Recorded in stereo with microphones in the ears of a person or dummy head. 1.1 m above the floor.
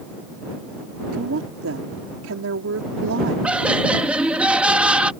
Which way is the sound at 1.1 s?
70° right (ahead or behind).